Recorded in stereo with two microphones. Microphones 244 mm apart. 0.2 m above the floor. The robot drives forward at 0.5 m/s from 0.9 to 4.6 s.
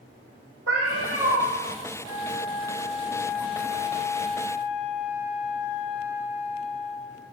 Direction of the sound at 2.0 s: 20° right (ahead or behind).